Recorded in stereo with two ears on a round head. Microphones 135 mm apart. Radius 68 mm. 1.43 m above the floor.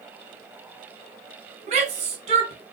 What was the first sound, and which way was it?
A shout, 45° right (ahead or behind).